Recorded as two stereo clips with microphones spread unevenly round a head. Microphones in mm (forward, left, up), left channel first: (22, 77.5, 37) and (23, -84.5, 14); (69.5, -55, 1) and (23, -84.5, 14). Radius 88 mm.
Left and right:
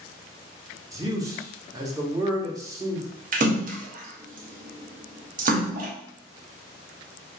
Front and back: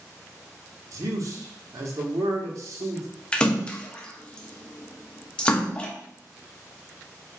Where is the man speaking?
140° right, 1.0 m.